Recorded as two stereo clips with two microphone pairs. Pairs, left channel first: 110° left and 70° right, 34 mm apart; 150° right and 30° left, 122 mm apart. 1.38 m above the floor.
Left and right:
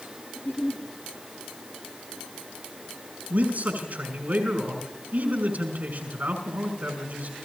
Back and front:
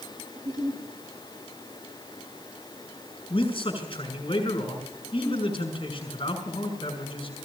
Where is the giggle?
80° left, 4 m.